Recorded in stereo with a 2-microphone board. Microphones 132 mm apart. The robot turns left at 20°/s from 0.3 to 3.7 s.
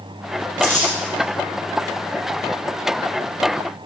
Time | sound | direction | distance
0.6 | crumpling | 70° left (ahead or behind) | 5 m